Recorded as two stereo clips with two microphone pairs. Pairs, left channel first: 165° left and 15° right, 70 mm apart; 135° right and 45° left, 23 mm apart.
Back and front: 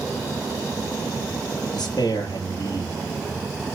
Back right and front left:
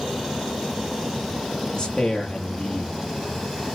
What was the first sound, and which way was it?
A man speaking, 175° left.